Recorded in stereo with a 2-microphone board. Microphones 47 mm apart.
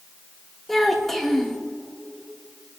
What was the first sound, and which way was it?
A child speaking, 5° left (ahead or behind).